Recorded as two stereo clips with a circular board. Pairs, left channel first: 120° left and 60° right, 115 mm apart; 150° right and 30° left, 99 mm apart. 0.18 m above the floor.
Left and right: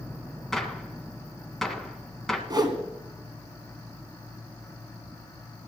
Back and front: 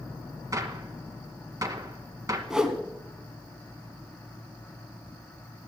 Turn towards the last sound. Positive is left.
turn(degrees=-50)